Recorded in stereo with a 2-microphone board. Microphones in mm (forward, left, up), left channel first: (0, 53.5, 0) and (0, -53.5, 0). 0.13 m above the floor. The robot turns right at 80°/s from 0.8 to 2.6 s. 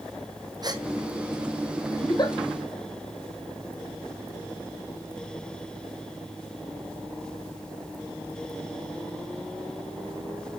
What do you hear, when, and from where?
0.6 s a gasp: 40° right (ahead or behind), 1.8 m; by 0.8 s 35° right (ahead or behind), 1.8 m
2.0 s a giggle: 25° left (ahead or behind), 3 m; by 2.4 s 50° left (ahead or behind), 3 m